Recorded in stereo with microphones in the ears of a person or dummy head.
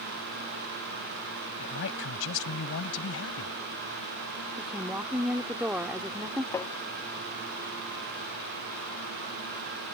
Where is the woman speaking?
10° right (ahead or behind).